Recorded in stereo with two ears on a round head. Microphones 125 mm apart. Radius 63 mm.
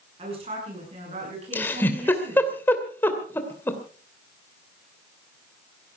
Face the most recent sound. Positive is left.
turn(degrees=15)  # may be behind; listen again after turning